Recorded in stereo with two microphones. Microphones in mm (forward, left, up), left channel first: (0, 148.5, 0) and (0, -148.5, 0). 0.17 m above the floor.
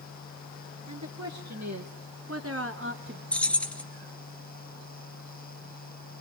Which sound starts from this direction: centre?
Keys jangling, at 3.3 s.